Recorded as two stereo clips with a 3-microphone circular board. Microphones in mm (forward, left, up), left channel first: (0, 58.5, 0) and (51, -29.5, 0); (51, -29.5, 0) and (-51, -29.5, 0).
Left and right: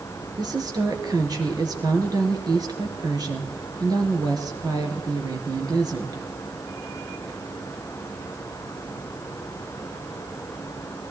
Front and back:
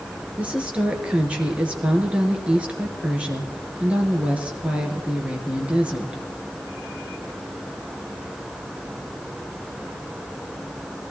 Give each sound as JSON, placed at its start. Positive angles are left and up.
{"t": 0.4, "sound": "a woman speaking", "azimuth_deg": -105, "distance_m": 2.5}